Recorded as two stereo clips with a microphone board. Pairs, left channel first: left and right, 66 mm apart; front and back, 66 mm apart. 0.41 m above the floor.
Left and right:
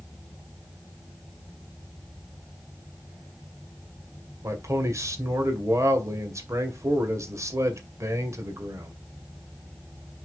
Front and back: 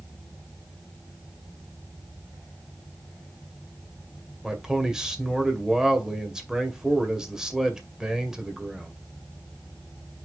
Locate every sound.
4.4 s a man speaking: 105° right, 2.0 m